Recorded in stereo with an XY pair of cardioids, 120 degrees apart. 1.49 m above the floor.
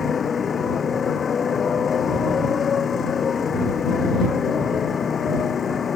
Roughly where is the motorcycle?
Ahead left.